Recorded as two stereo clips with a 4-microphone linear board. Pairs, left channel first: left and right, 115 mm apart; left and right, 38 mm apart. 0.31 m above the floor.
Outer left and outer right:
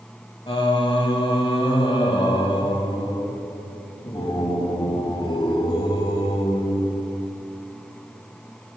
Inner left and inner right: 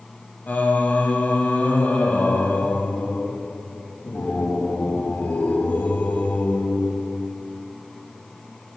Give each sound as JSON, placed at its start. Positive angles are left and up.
{"t": 0.5, "sound": "singing", "side_deg": 50, "distance_m": 0.7}